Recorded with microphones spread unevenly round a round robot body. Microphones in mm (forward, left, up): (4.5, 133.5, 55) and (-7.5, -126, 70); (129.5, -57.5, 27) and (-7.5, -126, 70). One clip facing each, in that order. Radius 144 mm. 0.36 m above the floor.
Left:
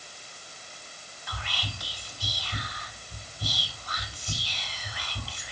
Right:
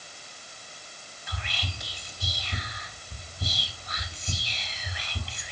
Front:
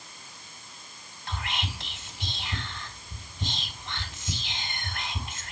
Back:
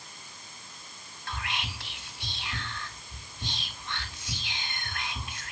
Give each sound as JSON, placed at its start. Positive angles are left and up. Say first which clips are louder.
{"t": 1.3, "sound": "whispering", "louder": "right 1 dB, front 2 dB", "azimuth_deg": -25, "distance_m": 2.5}